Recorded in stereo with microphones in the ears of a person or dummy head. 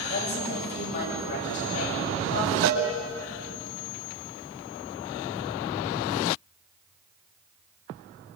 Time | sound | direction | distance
0.1 | a woman speaking | 55° left (ahead or behind) | 9 m
2.6 | a cowbell | 65° right (ahead or behind) | 5 m